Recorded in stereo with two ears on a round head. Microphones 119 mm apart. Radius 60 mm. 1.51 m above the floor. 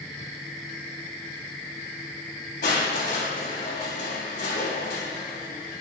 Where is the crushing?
75° left (ahead or behind), 3.5 m.